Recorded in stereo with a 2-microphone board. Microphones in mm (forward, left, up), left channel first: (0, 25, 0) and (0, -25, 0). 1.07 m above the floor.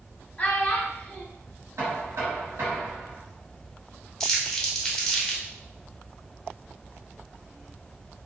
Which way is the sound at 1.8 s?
80° right.